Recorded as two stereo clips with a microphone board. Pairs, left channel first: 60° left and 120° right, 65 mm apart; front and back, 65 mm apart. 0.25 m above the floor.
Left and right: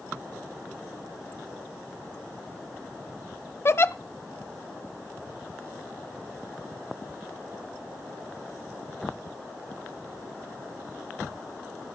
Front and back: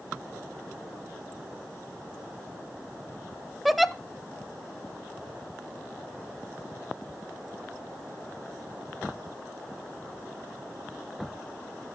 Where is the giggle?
90° left, 0.7 m.